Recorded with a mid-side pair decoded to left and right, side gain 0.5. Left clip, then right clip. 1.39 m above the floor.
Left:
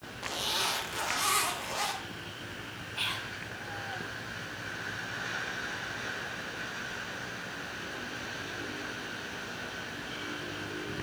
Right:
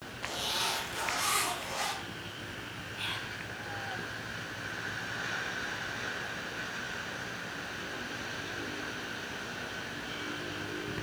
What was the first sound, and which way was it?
A zipper, 25° left.